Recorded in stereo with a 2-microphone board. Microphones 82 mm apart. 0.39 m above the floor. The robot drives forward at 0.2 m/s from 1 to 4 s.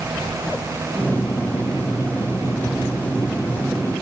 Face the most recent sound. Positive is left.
No sound to turn to.